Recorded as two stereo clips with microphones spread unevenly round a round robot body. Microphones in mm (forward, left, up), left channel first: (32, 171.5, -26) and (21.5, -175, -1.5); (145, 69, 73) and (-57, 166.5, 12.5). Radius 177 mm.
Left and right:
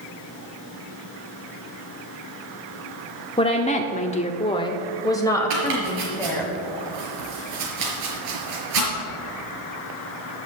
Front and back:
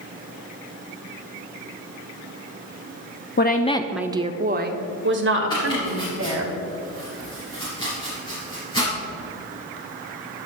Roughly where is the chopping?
Right.